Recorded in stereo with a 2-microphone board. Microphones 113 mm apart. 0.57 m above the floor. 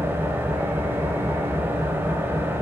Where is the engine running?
20° right (ahead or behind), 0.7 m.